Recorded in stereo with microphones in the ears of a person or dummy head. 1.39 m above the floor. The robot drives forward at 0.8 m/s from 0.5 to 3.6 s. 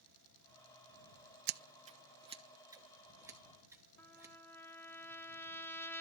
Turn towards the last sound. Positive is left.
turn(degrees=10)  # may be behind; listen again after turning